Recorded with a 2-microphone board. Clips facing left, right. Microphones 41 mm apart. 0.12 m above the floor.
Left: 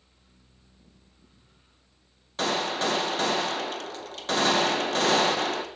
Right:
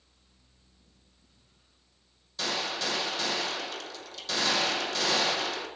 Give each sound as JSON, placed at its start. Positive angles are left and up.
{"t": 2.4, "sound": "a gunshot", "side_deg": 40, "distance_m": 0.9}